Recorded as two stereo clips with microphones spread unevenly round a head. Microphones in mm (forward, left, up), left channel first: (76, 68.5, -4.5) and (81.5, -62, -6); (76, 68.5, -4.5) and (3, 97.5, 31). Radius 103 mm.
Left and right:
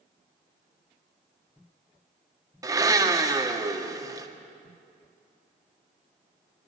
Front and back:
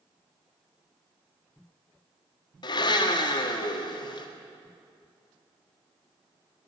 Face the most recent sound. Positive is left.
turn(degrees=-25)